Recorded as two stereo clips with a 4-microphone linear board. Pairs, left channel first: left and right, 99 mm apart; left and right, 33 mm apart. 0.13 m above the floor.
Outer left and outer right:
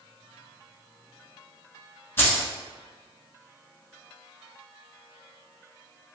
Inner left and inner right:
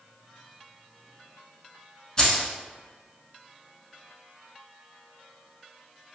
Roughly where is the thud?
No thud in this recording.